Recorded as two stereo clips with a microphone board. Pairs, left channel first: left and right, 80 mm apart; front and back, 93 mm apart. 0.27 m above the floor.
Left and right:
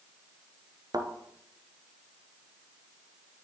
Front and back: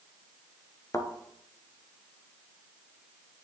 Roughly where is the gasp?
I don't hear a gasp.